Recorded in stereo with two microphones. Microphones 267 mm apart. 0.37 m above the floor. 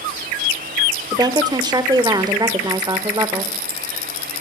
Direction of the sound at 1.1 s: 15° right (ahead or behind).